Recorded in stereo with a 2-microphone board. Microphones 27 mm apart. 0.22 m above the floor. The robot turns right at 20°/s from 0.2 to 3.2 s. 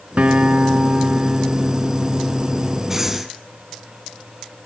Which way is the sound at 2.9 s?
10° right (ahead or behind).